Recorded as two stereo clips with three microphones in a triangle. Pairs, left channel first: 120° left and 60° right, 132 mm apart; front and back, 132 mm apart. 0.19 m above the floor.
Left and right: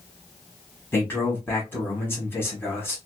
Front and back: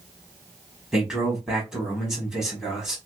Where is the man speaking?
105° left, 1.0 m.